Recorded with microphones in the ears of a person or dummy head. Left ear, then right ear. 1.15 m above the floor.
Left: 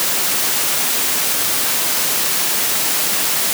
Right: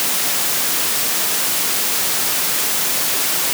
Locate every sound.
Only background noise.